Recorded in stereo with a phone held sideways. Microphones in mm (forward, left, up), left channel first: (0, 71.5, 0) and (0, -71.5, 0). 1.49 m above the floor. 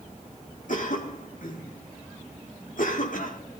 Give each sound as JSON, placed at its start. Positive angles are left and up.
{"t": 0.7, "sound": "a cough", "side_deg": 65, "distance_m": 2.0}